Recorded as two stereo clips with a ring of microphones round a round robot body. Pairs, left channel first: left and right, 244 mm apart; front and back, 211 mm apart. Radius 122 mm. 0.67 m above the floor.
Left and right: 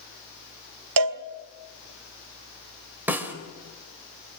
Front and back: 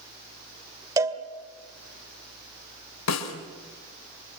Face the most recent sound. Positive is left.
turn(degrees=-5)